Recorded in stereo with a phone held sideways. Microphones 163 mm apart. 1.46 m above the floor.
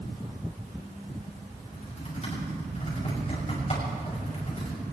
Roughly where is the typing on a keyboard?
Left.